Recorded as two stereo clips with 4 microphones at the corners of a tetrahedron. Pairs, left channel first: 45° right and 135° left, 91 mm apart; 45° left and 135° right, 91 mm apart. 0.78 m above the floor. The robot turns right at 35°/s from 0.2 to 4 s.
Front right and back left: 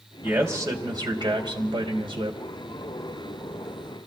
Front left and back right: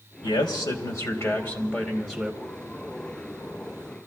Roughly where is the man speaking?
Ahead left.